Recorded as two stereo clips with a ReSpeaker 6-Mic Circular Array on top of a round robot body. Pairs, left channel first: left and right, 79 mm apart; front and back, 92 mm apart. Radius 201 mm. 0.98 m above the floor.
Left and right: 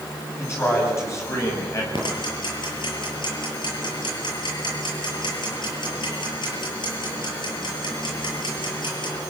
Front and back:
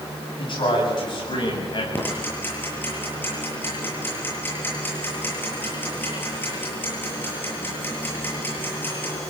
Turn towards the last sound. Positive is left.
turn(degrees=70)